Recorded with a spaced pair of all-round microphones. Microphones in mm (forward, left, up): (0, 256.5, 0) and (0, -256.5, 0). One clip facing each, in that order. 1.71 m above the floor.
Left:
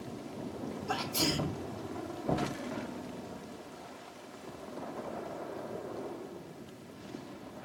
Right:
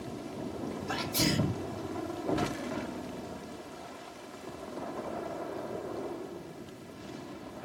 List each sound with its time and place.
0.9 s a sneeze: 45° right (ahead or behind), 0.6 m
2.2 s knocking: 30° left (ahead or behind), 1.2 m